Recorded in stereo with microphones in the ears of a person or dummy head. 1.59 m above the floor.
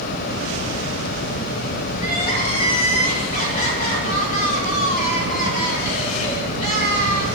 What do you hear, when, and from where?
2.0 s crying: 55° left (ahead or behind), 4.5 m